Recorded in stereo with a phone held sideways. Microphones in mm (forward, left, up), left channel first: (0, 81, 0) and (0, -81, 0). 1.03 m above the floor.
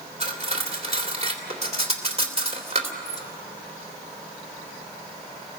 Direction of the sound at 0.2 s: 40° right (ahead or behind).